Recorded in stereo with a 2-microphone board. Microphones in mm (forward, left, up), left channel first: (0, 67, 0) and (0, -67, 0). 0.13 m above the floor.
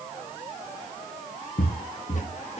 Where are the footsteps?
75° left (ahead or behind), 1.1 m; by 2.6 s 55° left (ahead or behind), 1.8 m.